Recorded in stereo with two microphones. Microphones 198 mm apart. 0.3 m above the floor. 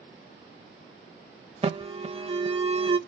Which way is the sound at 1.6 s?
30° right (ahead or behind).